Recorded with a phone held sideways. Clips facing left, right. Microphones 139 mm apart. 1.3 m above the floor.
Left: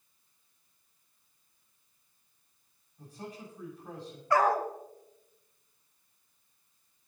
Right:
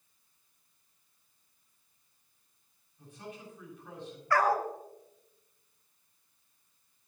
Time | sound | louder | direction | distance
3.0 | a man speaking | left 2 dB | 40° left (ahead or behind) | 7 m
4.3 | a dog barking | left 1 dB | 20° left (ahead or behind) | 1.2 m